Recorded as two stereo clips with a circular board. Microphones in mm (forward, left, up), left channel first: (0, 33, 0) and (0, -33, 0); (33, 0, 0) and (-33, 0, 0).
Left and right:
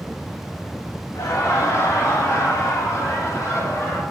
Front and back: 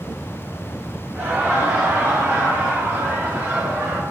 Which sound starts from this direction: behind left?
Laughter, at 1.1 s.